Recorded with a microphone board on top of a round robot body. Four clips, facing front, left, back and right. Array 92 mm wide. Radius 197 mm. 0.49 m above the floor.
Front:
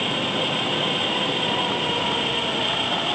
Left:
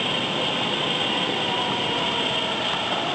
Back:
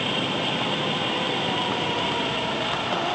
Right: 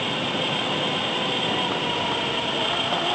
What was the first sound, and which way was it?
Only background noise.